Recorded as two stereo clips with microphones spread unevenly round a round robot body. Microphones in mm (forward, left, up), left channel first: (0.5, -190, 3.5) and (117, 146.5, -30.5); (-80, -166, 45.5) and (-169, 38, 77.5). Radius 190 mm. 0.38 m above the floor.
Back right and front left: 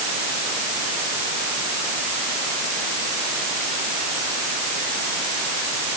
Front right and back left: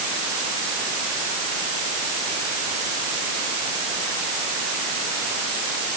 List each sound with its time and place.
Only background noise.